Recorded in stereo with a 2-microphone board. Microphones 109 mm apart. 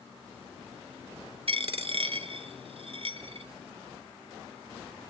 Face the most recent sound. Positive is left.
turn(degrees=-60)  # may be behind; listen again after turning